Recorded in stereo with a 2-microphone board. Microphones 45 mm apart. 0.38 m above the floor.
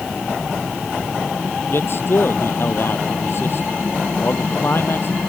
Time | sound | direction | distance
1.7 | a man speaking | 55° left (ahead or behind) | ?